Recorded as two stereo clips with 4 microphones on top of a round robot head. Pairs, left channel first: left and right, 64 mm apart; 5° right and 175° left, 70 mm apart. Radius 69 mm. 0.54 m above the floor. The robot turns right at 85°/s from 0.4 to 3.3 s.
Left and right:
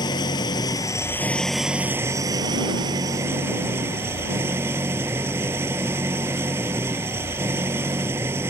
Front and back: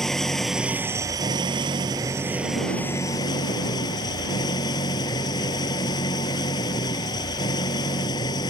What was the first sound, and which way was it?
An engine running, 80° left.